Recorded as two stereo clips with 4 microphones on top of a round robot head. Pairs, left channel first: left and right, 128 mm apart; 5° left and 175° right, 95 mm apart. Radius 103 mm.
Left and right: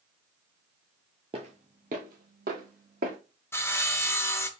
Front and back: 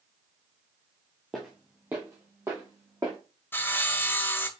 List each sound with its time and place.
1.3 s footsteps: 85° right, 0.8 m; by 3.2 s 105° right, 2 m
3.5 s sawing: 45° left, 0.9 m